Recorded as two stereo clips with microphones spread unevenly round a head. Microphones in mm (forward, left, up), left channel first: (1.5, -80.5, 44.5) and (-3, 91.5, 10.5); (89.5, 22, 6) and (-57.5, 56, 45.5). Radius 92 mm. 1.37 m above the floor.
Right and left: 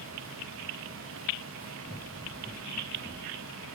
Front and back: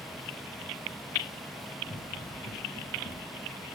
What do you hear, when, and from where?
1.9 s running footsteps: 50° right, 1.4 m; by 3.7 s 5° right, 3 m